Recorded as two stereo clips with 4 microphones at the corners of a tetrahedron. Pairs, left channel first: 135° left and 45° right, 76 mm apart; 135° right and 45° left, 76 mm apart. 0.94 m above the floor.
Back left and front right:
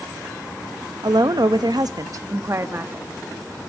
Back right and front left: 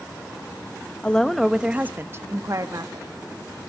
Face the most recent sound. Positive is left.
turn(degrees=15)